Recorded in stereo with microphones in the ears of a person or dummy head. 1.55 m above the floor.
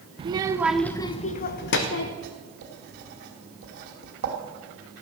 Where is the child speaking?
30° right (ahead or behind), 0.8 m; by 2.1 s 65° left (ahead or behind), 1.0 m.